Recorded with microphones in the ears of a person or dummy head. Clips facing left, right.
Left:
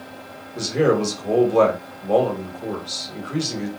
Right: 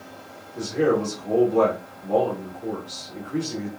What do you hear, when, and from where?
0.6 s a man speaking: 75° left (ahead or behind), 1.2 m